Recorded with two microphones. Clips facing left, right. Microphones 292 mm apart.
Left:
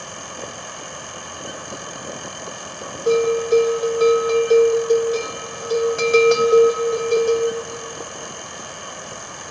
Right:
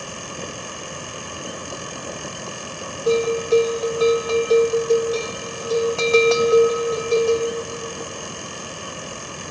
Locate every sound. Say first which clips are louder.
3.1 s a bell: left 2 dB; 15° left (ahead or behind), 1.2 m